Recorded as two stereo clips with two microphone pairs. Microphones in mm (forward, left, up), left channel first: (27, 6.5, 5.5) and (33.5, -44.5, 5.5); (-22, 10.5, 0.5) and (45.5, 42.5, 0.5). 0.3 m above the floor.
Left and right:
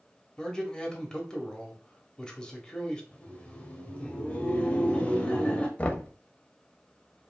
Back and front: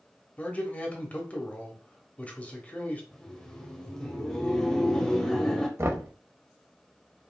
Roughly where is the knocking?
Ahead left.